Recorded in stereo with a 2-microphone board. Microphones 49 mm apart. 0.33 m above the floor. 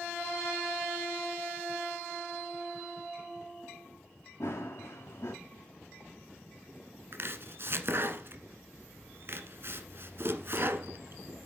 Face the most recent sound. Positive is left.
turn(degrees=-50)  # may be behind; listen again after turning